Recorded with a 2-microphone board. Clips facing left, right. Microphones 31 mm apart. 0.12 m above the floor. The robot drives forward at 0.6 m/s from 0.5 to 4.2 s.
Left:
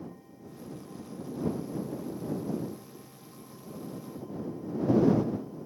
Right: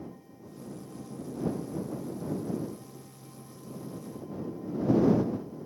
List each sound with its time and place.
Only background noise.